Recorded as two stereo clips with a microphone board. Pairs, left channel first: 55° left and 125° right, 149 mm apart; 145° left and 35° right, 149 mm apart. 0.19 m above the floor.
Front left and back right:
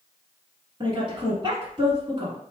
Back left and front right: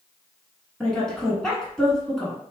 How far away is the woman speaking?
About 1.3 m.